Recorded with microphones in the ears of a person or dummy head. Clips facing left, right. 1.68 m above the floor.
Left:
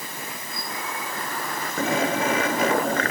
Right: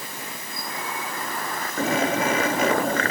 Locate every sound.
Only background noise.